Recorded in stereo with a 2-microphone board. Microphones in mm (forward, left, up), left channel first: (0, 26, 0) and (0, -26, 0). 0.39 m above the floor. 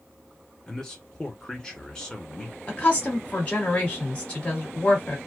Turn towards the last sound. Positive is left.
turn(degrees=25)  # may be behind; listen again after turning